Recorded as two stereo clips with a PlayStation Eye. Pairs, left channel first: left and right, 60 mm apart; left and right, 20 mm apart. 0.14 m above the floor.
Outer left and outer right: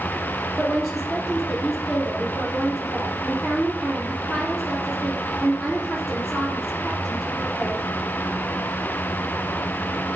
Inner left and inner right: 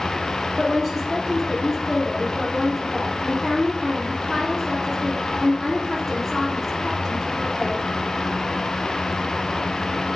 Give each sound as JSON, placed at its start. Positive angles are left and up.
{"t": 0.6, "sound": "a woman speaking", "side_deg": 0, "distance_m": 3.5}